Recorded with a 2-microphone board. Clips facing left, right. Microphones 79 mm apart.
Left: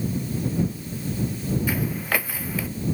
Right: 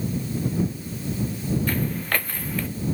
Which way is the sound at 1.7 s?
5° left (ahead or behind).